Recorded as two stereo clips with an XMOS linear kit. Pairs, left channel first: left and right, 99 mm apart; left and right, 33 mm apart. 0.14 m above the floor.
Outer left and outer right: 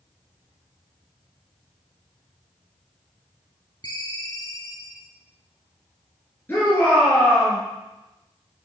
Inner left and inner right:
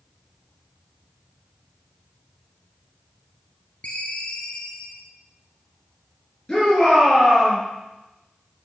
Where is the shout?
20° left (ahead or behind), 1.9 m.